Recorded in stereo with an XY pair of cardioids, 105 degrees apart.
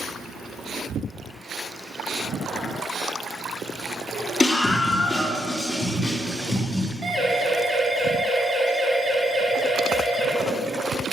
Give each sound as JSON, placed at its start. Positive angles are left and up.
{"t": 4.4, "sound": "a scream", "azimuth_deg": 10, "distance_m": 3.0}
{"t": 7.0, "sound": "a siren", "azimuth_deg": -35, "distance_m": 5.5}